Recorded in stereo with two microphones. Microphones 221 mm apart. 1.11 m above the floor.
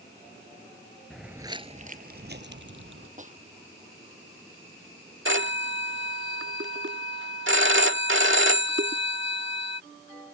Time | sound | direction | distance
1.1 | footsteps | centre (ahead or behind) | ?
3.2 | a snare drum | 35° right (ahead or behind) | ?
5.2 | a phone ringing | 65° right (ahead or behind) | ?